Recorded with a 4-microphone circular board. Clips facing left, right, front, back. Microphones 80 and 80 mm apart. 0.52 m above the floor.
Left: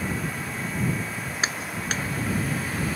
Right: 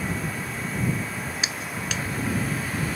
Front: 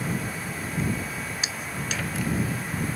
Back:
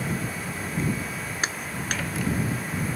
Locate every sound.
1.4 s a clap: 140° left